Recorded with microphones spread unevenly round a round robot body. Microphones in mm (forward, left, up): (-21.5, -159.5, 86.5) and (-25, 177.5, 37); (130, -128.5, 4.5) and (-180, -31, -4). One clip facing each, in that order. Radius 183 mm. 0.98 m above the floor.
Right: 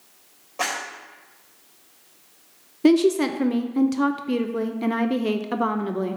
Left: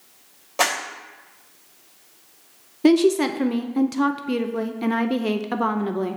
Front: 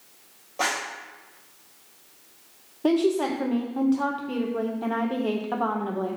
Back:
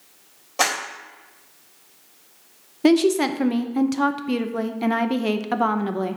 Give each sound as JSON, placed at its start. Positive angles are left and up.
{"t": 0.6, "sound": "a clap", "azimuth_deg": 115, "distance_m": 3.0}
{"t": 2.8, "sound": "a woman speaking", "azimuth_deg": 170, "distance_m": 0.6}